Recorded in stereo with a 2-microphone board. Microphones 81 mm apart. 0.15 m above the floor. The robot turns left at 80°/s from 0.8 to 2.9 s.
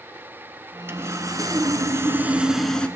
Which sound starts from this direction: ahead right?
Sawing, at 0.9 s.